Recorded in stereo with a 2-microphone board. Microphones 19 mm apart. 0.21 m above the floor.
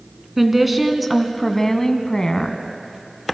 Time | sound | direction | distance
0.4 | a woman speaking | 15° right (ahead or behind) | 2.5 m